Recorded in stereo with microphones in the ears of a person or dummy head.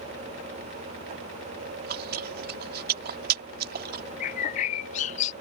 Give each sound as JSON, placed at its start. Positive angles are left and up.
{"t": 1.7, "sound": "chewing", "side_deg": -55}
{"t": 4.2, "sound": "a bird", "side_deg": 45}